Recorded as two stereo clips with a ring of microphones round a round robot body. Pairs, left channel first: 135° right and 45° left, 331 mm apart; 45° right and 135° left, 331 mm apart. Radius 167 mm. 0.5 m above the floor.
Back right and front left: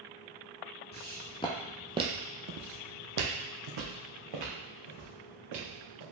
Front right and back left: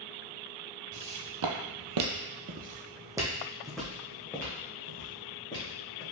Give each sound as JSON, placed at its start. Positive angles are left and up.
{"t": 0.9, "sound": "footsteps", "azimuth_deg": 165, "distance_m": 1.1}